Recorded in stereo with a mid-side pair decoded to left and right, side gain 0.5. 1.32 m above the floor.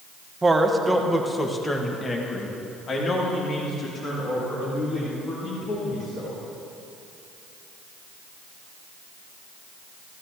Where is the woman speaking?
20° right, 1.5 m; by 6.4 s 60° left, 5.5 m.